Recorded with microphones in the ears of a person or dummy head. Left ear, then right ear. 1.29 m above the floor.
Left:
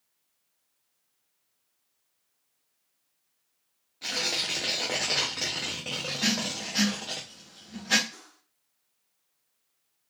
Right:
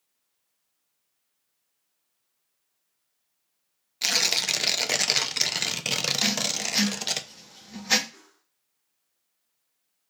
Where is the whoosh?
75° left (ahead or behind), 1.5 m.